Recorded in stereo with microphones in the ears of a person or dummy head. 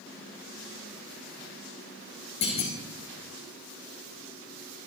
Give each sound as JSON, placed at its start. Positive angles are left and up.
{"t": 2.4, "sound": "a clunk", "side_deg": 35, "distance_m": 1.8}